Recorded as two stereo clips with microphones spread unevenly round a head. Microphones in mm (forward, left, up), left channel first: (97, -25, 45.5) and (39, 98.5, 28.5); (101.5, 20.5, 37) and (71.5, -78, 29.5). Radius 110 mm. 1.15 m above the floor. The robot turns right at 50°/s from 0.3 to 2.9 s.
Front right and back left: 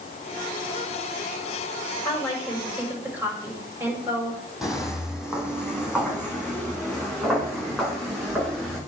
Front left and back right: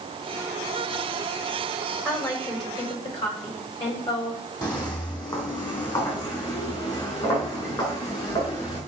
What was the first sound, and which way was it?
A woman speaking, straight ahead.